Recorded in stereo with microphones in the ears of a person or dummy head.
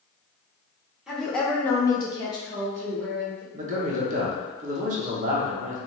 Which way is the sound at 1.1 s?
Centre (ahead or behind).